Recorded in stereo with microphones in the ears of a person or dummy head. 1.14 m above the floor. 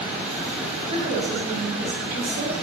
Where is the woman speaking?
30° right (ahead or behind), 2.5 m; by 2.5 s 55° right (ahead or behind), 3.5 m.